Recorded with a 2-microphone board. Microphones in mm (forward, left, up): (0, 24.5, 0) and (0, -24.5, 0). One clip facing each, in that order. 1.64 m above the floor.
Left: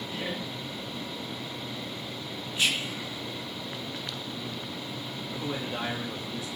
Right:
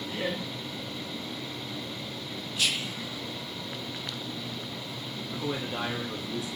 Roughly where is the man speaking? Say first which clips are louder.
Right 1 dB; centre.